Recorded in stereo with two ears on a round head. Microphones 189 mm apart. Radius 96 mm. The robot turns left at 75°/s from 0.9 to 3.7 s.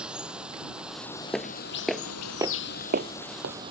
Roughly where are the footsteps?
Centre.